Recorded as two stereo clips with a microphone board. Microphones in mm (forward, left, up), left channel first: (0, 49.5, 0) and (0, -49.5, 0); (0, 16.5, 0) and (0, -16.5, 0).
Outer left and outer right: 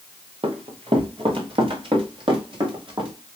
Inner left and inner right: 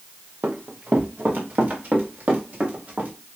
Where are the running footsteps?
70° right (ahead or behind), 2 m; by 3.1 s 55° right (ahead or behind), 4.5 m.